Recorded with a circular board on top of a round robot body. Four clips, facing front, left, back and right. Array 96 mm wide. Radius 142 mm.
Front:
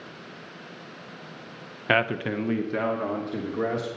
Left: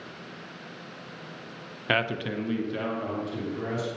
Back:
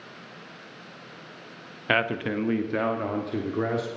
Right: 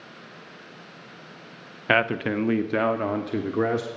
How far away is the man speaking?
About 0.9 m.